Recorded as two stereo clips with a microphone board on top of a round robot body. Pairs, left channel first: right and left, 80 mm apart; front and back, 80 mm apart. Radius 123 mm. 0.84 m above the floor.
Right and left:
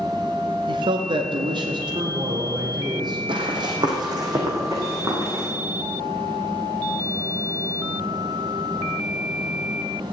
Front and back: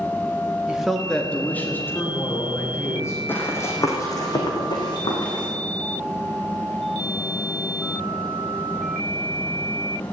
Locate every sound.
0.7 s a man speaking: 105° left, 1.1 m; by 3.2 s 55° left, 4 m
3.3 s running footsteps: 65° left, 2.5 m; by 5.4 s 30° left, 4.5 m